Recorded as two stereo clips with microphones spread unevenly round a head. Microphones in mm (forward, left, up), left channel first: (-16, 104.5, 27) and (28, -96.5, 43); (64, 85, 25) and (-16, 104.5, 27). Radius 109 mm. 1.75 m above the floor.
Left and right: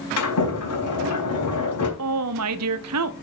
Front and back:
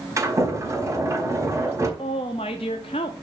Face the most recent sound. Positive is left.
turn(degrees=-65)